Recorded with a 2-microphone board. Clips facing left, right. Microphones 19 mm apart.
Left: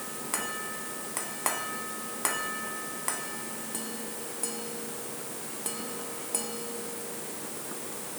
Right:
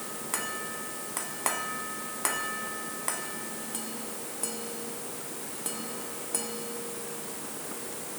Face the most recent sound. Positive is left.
No sound to turn to.